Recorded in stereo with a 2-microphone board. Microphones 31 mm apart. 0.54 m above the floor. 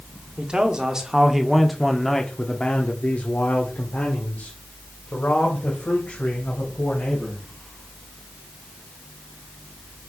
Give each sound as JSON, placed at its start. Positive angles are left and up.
{"t": 0.4, "sound": "a man speaking", "side_deg": -30, "distance_m": 1.3}